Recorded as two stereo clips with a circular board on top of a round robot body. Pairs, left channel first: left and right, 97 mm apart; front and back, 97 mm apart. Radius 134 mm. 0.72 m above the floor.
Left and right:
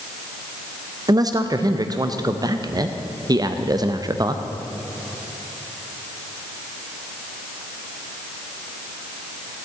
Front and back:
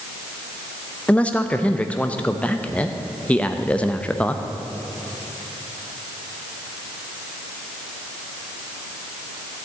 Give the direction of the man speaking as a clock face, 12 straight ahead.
2 o'clock.